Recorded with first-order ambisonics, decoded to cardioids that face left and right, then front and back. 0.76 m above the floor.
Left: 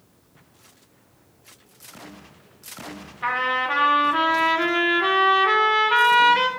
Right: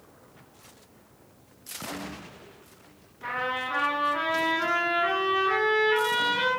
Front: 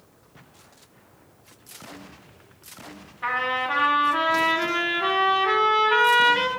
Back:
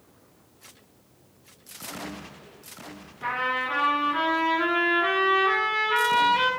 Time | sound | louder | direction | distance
3.2 | a trumpet | left 7 dB, front 2 dB | 70° left | 1.8 m